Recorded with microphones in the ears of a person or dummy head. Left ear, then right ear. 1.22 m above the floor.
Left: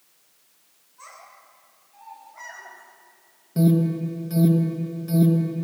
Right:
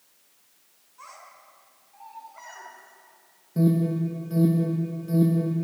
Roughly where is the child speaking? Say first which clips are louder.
Left 1 dB; right.